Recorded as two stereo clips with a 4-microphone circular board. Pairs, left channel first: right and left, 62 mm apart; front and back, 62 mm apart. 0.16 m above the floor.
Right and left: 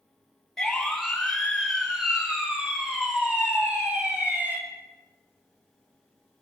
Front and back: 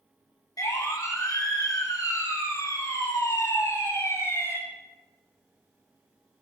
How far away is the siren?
About 8 m.